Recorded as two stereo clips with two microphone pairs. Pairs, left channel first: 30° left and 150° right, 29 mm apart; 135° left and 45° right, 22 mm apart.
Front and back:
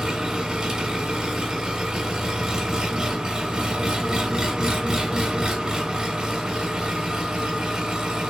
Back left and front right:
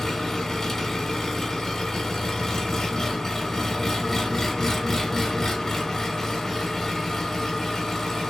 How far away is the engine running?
About 1.0 m.